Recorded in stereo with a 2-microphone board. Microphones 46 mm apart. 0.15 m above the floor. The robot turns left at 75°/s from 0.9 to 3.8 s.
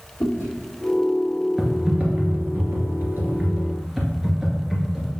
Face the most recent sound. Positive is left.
turn(degrees=-175)